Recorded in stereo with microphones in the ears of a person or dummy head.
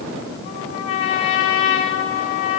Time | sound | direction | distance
0.5 | a trumpet | 40° left (ahead or behind) | 2.5 m